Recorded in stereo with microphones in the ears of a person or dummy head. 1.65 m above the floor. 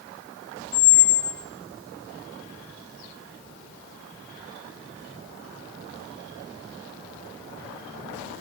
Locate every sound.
0.7 s a squeak: 15° left (ahead or behind), 0.6 m